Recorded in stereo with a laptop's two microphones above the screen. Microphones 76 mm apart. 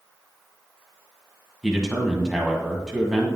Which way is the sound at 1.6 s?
5° right (ahead or behind).